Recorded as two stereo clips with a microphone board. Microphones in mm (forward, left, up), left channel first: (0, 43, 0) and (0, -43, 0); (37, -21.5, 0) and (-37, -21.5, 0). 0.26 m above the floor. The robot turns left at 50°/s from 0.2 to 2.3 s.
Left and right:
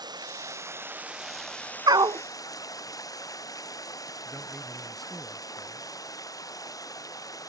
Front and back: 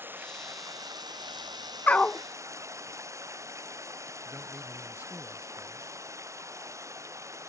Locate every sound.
0.0 s running water: 120° right; by 7.5 s 135° left
1.9 s a dog barking: 65° right; by 2.2 s 85° right
4.2 s a man speaking: straight behind